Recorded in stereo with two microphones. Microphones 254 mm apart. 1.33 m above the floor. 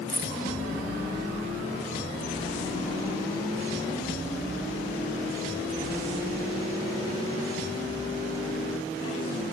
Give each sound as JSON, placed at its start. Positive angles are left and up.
{"t": 0.1, "sound": "keys jangling", "side_deg": -35, "distance_m": 3.5}